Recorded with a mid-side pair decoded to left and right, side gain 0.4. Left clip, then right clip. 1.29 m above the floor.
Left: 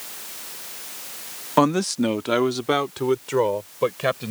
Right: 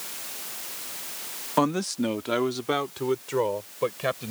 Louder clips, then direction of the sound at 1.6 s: Left 5 dB; 40° left.